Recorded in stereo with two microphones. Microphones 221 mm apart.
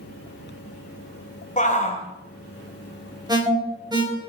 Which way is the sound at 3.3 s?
20° right (ahead or behind).